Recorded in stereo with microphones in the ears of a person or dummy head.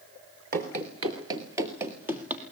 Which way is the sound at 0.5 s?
30° right (ahead or behind).